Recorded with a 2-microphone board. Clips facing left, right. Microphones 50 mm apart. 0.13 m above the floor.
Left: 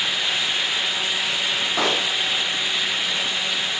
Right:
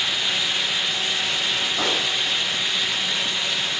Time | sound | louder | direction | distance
1.8 | a pop | left 4 dB | 80° left | 7.5 m